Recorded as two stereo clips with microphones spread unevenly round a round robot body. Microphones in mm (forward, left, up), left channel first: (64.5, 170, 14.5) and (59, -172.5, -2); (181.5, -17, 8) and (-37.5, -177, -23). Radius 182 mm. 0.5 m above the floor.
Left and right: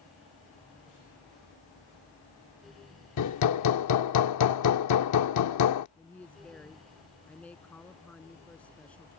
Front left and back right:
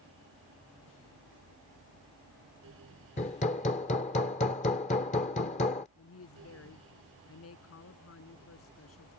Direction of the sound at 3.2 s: 105° left.